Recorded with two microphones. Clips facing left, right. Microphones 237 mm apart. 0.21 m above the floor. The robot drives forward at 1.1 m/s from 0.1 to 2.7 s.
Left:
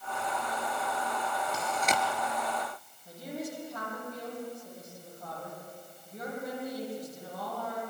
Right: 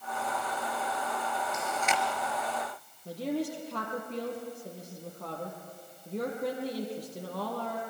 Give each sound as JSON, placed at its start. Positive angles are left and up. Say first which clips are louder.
{"t": 1.5, "sound": "chewing", "louder": "left 1 dB", "side_deg": 35, "distance_m": 2.5}
{"t": 3.0, "sound": "a woman speaking", "louder": "right 7 dB", "side_deg": -75, "distance_m": 5.5}